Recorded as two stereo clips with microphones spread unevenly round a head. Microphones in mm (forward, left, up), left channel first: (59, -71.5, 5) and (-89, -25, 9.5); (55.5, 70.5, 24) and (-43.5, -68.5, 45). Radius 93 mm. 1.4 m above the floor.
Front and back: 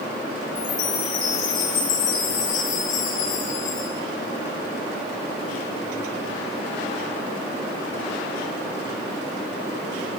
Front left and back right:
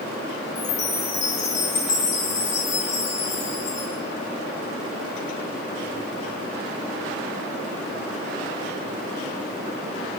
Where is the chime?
Straight ahead, 6.5 m.